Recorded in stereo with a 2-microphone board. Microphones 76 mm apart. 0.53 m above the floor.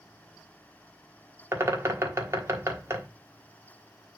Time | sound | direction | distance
1.5 | a bird | 35° right (ahead or behind) | 1.3 m